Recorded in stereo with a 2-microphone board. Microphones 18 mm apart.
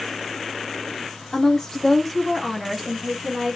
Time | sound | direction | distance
1.3 | a woman speaking | 25° left (ahead or behind) | 1.3 m